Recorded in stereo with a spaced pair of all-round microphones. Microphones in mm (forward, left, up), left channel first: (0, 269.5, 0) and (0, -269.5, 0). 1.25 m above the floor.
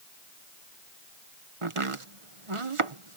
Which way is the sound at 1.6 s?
65° right (ahead or behind).